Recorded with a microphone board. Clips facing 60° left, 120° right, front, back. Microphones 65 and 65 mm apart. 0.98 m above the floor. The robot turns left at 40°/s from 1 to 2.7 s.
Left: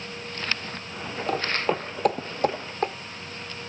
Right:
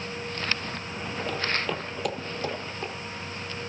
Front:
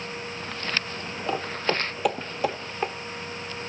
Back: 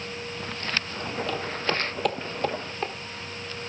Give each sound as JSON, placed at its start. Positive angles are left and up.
{"t": 1.3, "sound": "footsteps", "azimuth_deg": 50, "distance_m": 1.3}